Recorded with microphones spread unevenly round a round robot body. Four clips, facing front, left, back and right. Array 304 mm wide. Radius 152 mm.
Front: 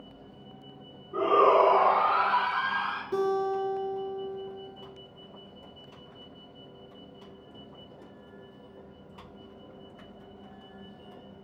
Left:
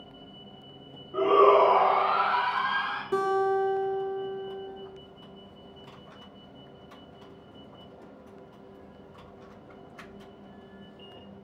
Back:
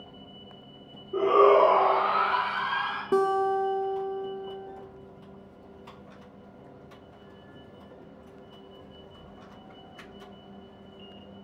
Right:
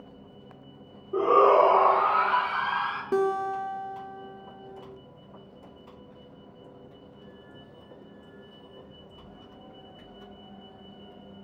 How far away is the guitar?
About 0.9 m.